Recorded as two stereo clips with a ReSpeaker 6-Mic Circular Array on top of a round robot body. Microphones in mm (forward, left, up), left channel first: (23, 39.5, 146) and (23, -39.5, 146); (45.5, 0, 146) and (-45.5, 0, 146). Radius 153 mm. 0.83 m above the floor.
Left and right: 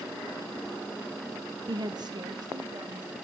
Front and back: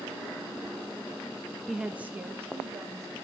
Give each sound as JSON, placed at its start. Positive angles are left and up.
{"t": 1.7, "sound": "a woman speaking", "azimuth_deg": -90, "distance_m": 0.9}